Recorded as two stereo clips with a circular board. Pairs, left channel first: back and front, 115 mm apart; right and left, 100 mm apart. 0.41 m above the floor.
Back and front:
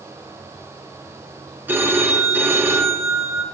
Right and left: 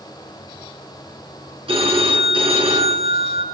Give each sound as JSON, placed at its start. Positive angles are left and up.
{"t": 1.7, "sound": "a phone ringing", "azimuth_deg": 70, "distance_m": 3.0}